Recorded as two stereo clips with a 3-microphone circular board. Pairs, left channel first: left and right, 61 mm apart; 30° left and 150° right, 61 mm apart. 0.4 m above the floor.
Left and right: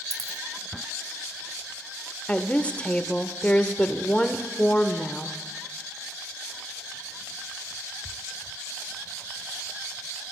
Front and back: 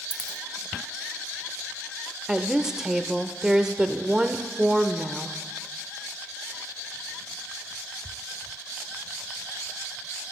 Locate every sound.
0.1 s a dropped coin: 75° left, 0.8 m
2.3 s a woman speaking: 140° left, 0.8 m